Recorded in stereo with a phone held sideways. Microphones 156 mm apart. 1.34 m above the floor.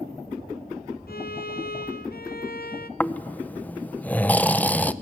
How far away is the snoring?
About 0.5 m.